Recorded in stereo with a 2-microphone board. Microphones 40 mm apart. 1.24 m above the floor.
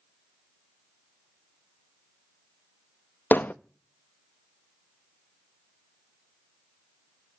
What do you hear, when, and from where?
3.3 s hammering: 55° left (ahead or behind), 0.7 m